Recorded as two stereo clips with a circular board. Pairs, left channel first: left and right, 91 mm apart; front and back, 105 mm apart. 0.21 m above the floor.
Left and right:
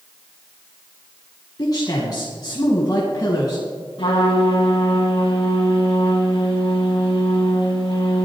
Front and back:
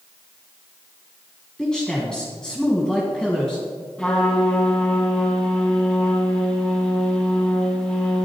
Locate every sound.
1.6 s a man speaking: 80° left, 1.9 m
4.0 s a trumpet: 80° left, 4 m